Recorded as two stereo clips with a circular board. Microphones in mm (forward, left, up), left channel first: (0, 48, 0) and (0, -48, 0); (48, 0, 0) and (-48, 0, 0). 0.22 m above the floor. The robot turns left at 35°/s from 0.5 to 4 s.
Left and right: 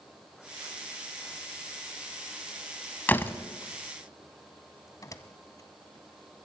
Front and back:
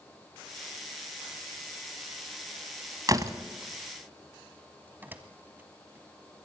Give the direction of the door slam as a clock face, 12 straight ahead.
7 o'clock.